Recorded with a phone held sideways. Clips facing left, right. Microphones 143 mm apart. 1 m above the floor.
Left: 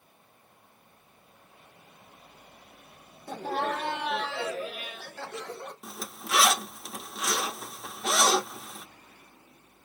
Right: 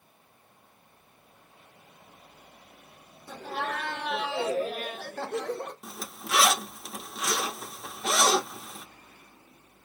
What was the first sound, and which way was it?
Laughter, 50° left (ahead or behind).